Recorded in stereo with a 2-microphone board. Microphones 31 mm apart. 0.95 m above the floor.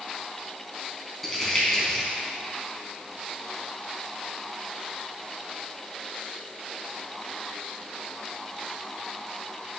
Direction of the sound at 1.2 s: 5° left (ahead or behind).